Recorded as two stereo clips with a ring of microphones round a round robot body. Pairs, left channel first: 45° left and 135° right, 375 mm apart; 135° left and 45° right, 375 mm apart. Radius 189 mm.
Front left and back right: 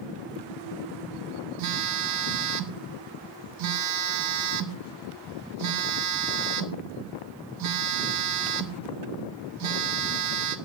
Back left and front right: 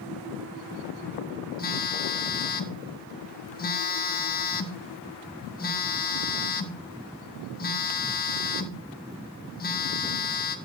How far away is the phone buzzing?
About 1.1 m.